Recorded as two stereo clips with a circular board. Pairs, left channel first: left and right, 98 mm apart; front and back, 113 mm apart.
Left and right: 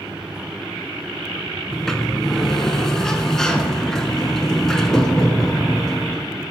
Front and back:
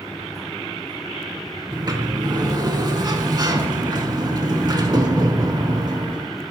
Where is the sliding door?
170° left, 0.5 m.